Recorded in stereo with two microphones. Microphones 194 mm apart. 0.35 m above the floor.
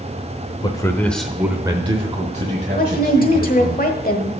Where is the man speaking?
25° left (ahead or behind), 0.9 m; by 3.8 s 50° right (ahead or behind), 1.8 m.